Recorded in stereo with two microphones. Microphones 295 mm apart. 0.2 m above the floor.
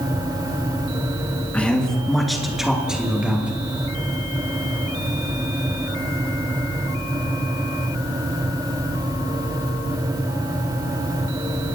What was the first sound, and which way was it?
A man speaking, 5° left (ahead or behind).